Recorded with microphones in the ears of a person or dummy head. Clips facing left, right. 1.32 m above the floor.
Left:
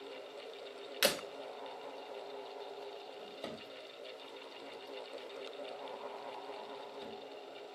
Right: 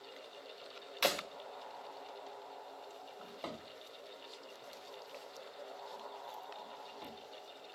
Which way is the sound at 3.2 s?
15° left (ahead or behind).